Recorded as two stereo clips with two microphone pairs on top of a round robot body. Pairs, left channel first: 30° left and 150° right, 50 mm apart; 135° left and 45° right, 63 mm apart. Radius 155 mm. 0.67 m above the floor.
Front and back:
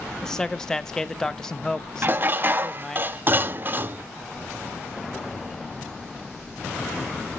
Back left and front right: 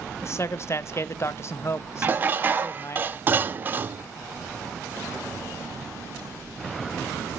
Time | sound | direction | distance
0.2 | a man speaking | 110° left | 0.9 m
2.0 | dishes clattering | 100° right | 0.6 m